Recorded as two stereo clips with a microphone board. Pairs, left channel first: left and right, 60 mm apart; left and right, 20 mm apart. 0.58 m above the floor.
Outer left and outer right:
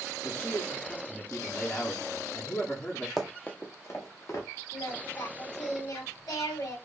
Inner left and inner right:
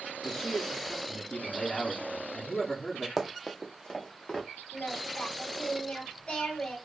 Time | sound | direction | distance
0.2 | a man speaking | 30° left (ahead or behind) | 1.0 m
3.2 | running footsteps | centre (ahead or behind) | 0.8 m
4.7 | singing | 75° left (ahead or behind) | 1.9 m